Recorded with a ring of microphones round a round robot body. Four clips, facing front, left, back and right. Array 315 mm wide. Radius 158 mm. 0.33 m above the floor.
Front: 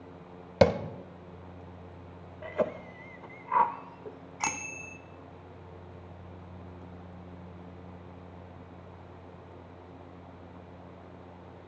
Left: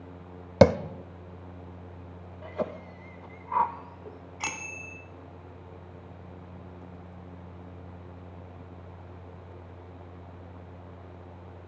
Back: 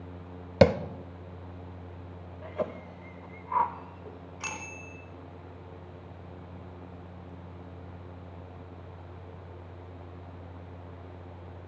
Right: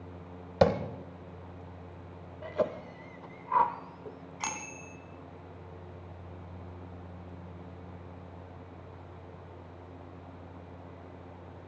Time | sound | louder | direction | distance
0.6 | tapping | left 6 dB, back 2 dB | 110° left | 0.6 m
2.4 | a cough | right 2 dB, front 3 dB | 30° right | 0.9 m
4.4 | a bicycle bell | even, front 6 dB | 15° left | 2 m